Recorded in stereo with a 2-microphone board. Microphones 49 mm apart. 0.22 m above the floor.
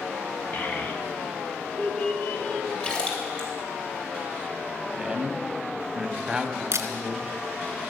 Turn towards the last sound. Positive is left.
turn(degrees=-70)  # may be behind; listen again after turning